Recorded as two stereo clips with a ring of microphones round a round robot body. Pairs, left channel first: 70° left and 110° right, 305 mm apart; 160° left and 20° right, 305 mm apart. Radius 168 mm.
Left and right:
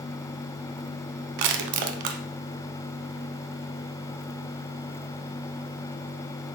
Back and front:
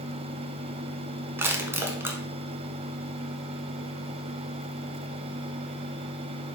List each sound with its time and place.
1.4 s crushing: 105° right, 0.8 m